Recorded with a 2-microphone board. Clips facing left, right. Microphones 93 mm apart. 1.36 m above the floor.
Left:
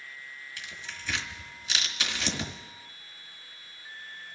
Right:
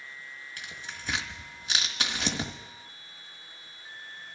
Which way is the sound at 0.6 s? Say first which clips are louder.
Right 1 dB; 45° right (ahead or behind).